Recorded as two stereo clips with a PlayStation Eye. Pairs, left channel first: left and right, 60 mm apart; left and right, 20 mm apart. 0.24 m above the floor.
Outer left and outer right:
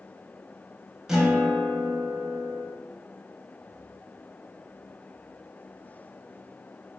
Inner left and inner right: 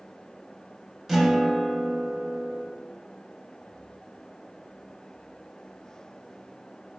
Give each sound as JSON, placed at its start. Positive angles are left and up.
{"t": 1.1, "sound": "a guitar", "side_deg": -10, "distance_m": 0.8}